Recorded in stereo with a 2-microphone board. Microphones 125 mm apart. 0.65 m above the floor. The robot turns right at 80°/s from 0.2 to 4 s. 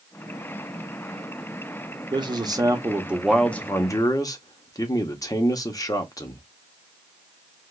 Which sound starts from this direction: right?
A man speaking, at 2.1 s.